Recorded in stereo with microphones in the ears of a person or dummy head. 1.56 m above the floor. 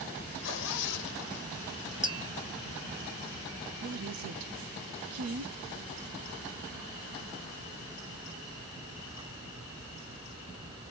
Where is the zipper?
60° left (ahead or behind), 1.3 m.